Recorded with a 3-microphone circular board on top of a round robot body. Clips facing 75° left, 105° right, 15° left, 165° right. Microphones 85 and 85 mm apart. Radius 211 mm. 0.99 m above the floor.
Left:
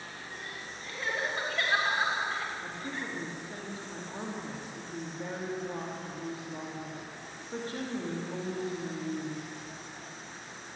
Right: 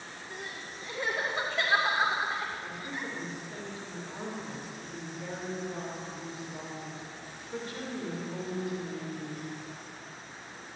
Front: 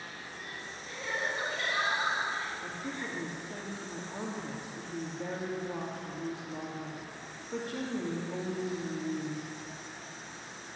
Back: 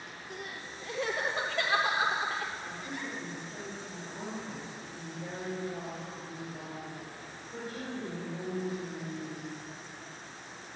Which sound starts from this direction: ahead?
A woman speaking, at 2.6 s.